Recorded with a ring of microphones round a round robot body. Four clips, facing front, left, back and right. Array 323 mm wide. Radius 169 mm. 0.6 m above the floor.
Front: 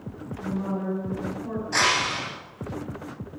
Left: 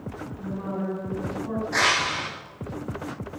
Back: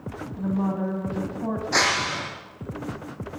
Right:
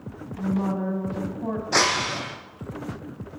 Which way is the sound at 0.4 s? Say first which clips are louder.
Right 6 dB, back 4 dB; 150° right.